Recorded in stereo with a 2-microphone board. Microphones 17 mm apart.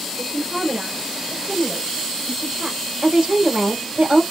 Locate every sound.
0.2 s a woman speaking: 55° right (ahead or behind), 2.5 m
3.0 s a woman speaking: 60° right (ahead or behind), 4 m